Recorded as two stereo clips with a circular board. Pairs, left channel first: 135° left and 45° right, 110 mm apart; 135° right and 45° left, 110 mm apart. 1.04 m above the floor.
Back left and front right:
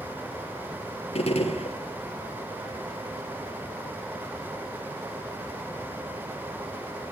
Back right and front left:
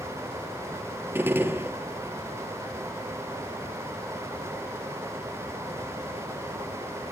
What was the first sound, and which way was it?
A gunshot, 115° left.